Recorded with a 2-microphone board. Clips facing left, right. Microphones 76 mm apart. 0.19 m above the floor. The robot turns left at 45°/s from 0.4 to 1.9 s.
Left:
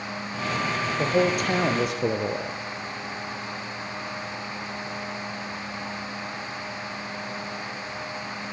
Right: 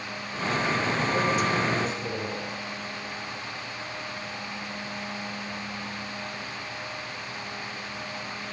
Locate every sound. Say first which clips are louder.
1.0 s a man speaking: left 6 dB; 140° left, 4.5 m; by 2.6 s 100° left, 4.5 m